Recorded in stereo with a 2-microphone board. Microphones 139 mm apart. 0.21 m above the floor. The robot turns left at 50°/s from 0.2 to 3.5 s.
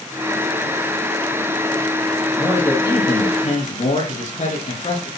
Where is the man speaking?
Straight behind, 8 m; by 5.1 s 120° left, 8 m.